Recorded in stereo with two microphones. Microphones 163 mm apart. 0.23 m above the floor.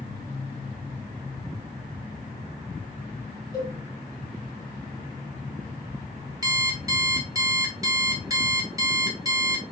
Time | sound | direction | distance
3.5 | a cowbell | 25° left (ahead or behind) | 1.6 m
6.4 | an alarm clock | 20° right (ahead or behind) | 1.0 m